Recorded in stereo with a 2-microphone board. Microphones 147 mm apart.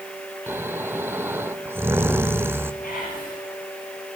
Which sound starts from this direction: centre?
Snoring, at 0.5 s.